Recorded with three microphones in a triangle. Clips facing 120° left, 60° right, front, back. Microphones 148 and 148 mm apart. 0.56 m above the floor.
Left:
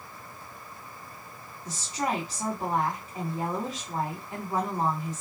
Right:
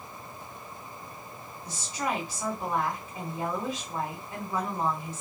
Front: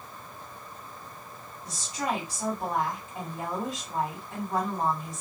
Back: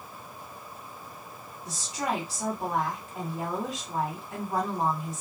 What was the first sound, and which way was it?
A woman speaking, 90° left.